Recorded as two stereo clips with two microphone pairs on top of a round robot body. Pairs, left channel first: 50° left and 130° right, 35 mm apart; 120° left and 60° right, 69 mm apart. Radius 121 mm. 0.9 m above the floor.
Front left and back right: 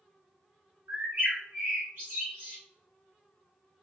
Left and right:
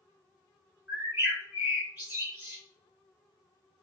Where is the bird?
110° right, 0.7 m.